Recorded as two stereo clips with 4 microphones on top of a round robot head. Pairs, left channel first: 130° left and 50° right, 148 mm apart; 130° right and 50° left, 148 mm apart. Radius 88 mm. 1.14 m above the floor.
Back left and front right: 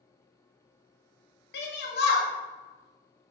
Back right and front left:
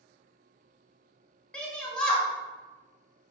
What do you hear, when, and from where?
1.5 s a shout: 145° left, 0.6 m